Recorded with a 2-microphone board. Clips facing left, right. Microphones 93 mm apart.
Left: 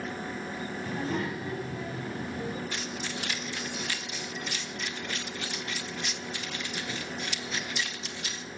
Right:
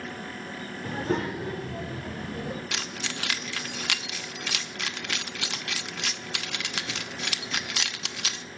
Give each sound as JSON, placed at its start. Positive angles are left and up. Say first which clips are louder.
{"t": 0.8, "sound": "a child speaking", "louder": "right 4 dB", "side_deg": -55, "distance_m": 2.0}
{"t": 2.7, "sound": "keys jangling", "louder": "even", "side_deg": -75, "distance_m": 0.6}